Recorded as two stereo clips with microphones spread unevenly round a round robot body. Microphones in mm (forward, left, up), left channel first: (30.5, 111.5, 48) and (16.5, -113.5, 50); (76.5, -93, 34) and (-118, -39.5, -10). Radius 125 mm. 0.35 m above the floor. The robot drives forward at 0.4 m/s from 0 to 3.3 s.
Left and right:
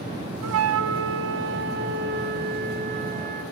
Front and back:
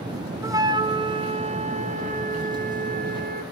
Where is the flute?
120° right, 1.1 m; by 3.4 s 150° right, 2.0 m.